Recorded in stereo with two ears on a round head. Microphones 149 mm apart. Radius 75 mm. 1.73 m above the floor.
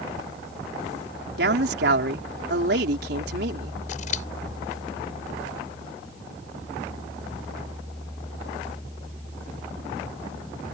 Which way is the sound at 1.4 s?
65° right (ahead or behind).